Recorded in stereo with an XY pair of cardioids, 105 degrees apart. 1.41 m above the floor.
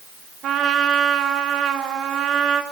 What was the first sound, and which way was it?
A trumpet, 65° right.